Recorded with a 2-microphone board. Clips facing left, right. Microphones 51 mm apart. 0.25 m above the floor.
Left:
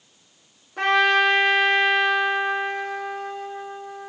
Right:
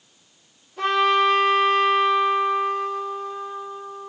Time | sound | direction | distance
0.8 | a trumpet | 75° left (ahead or behind) | 5.5 m